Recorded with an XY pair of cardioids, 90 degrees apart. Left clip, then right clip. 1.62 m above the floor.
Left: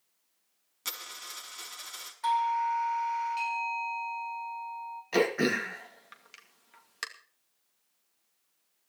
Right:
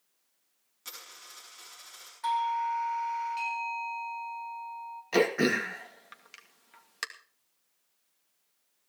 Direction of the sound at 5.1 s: 10° right.